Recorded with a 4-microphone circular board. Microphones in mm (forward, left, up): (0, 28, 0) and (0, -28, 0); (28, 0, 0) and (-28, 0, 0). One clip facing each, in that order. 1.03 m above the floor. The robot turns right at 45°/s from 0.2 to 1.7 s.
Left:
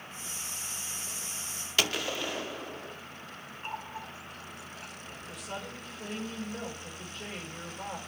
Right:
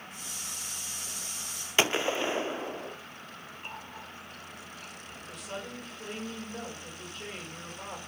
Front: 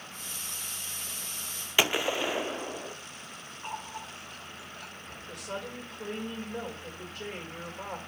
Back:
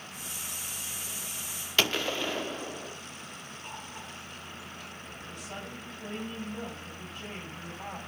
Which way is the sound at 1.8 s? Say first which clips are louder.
Right 4 dB, front 2 dB; 55° right.